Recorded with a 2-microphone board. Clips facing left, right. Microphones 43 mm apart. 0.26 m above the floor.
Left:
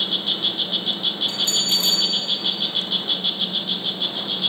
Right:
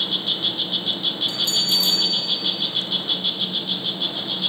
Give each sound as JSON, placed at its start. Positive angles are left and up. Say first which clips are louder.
{"t": 0.0, "sound": "an insect", "louder": "even", "side_deg": 10, "distance_m": 0.8}
{"t": 1.3, "sound": "a bell", "louder": "even", "side_deg": 40, "distance_m": 3.0}